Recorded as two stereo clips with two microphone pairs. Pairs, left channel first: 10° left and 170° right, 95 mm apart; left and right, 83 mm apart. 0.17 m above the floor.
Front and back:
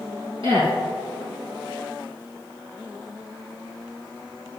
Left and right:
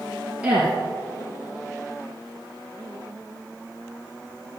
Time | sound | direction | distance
0.4 | a woman speaking | 165° right | 3.5 m